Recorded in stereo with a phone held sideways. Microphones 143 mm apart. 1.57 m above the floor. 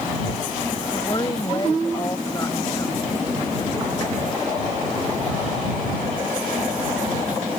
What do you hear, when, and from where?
0.9 s a woman speaking: 30° left (ahead or behind); by 3.0 s 20° left (ahead or behind)